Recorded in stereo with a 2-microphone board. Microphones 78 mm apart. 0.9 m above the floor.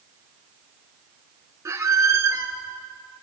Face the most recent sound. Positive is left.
turn(degrees=-35)  # may be behind; listen again after turning